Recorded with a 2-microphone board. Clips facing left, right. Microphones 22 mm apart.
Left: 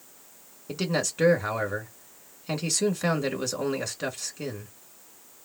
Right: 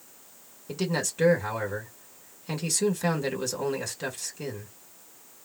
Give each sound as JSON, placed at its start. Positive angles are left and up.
{"t": 0.7, "sound": "a man speaking", "side_deg": 10, "distance_m": 1.7}